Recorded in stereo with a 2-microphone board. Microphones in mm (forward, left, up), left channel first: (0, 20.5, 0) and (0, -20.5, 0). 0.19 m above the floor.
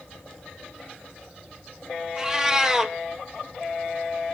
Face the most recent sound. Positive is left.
turn(degrees=-15)  # may be behind; listen again after turning